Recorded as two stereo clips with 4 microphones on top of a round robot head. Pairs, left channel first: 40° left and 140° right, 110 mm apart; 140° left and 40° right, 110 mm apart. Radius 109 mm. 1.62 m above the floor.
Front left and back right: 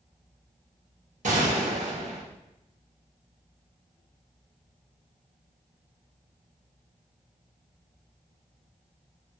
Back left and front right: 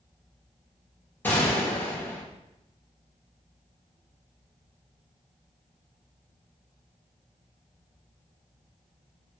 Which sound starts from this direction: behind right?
A gunshot, at 1.2 s.